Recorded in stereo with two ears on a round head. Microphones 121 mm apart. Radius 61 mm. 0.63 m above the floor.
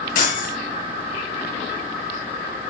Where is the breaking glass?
70° left (ahead or behind), 7 m.